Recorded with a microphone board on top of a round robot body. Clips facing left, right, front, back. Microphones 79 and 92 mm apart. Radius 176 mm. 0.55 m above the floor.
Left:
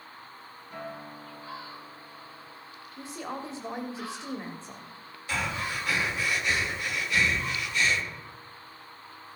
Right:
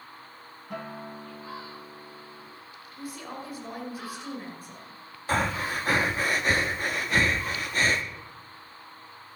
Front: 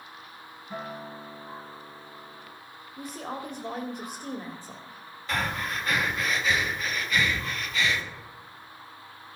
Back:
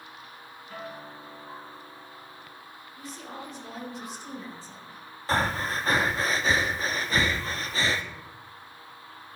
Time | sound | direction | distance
0.7 | a guitar | 70° right | 1.8 m
3.0 | a woman speaking | 30° left | 1.8 m
5.3 | breathing | 130° right | 1.2 m